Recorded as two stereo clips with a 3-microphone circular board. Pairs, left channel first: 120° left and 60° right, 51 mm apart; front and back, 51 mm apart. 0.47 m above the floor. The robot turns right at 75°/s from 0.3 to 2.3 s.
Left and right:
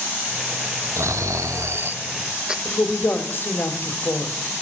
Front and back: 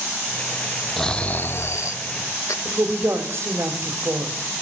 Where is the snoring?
85° right, 0.6 m; by 2.5 s 15° left, 0.6 m.